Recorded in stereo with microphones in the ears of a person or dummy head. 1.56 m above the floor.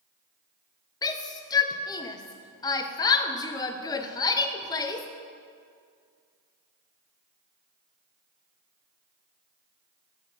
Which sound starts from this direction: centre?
A shout, at 1.0 s.